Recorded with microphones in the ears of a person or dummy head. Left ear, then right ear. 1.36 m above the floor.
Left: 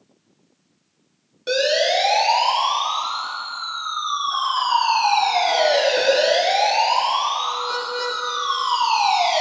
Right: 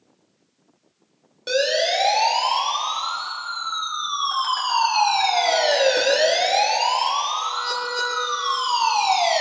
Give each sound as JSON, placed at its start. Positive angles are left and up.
{"t": 1.5, "sound": "a siren", "side_deg": -10, "distance_m": 4.0}